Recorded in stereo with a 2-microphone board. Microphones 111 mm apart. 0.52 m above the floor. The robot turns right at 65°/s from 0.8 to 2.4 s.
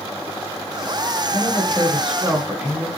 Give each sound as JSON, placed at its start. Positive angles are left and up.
{"t": 1.3, "sound": "a woman speaking", "azimuth_deg": 120, "distance_m": 0.9}